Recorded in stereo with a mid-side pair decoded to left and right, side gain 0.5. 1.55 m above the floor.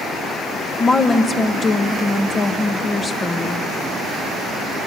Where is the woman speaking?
30° left, 1.5 m.